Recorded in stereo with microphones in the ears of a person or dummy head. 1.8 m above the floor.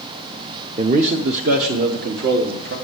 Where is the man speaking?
40° right (ahead or behind), 0.8 m; by 2.8 s 75° right (ahead or behind), 2.5 m.